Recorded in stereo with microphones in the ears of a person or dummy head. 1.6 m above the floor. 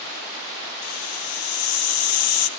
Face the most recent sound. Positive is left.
turn(degrees=75)  # may be behind; listen again after turning